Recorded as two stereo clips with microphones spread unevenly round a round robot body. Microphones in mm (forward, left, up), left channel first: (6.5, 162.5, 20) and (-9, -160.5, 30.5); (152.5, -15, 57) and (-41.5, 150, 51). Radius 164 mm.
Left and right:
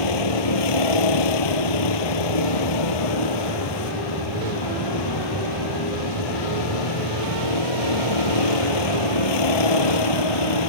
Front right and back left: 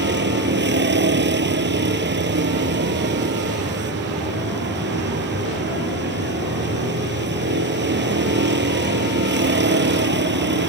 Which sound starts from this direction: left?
A vehicle, at 0.0 s.